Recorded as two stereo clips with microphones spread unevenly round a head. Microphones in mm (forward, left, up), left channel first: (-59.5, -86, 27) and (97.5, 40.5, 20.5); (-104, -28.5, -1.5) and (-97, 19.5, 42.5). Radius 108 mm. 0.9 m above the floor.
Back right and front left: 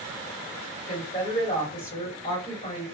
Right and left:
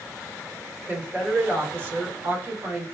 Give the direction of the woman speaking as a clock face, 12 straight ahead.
7 o'clock.